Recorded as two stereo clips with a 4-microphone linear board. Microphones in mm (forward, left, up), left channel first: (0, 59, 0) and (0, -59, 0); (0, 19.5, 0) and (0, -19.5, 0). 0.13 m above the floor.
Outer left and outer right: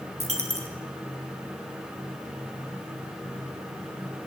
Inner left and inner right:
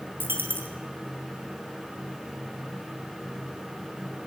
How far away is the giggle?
No giggle in this recording.